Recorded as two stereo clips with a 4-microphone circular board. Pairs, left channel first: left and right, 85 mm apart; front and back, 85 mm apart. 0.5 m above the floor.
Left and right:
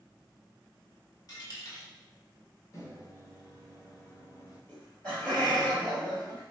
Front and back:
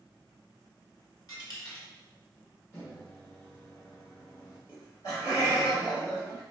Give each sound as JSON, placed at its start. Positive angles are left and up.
{"t": 1.3, "sound": "a dropped coin", "azimuth_deg": 45, "distance_m": 1.4}
{"t": 2.7, "sound": "a microwave", "azimuth_deg": 50, "distance_m": 1.1}
{"t": 4.7, "sound": "laughter", "azimuth_deg": 20, "distance_m": 1.9}